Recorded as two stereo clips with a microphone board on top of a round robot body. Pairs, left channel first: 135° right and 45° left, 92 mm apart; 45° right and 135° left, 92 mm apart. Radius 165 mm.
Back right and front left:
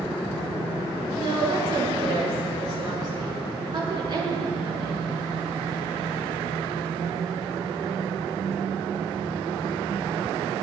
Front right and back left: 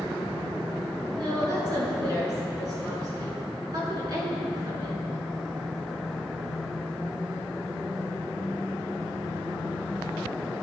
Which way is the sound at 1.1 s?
85° left.